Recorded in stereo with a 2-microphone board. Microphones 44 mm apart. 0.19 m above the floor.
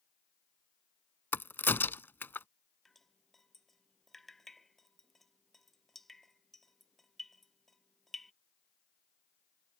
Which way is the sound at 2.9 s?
5° left (ahead or behind).